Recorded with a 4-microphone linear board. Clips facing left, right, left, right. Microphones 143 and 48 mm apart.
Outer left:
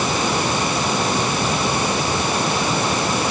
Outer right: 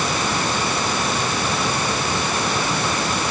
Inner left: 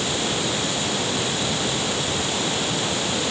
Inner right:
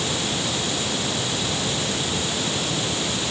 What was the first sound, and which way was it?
Only background noise.